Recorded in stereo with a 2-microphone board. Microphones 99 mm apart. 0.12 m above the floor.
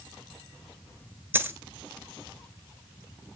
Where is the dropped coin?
25° right (ahead or behind), 1.0 m.